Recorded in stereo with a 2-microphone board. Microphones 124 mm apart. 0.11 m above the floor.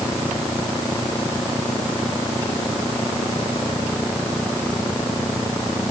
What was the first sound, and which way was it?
Only background noise.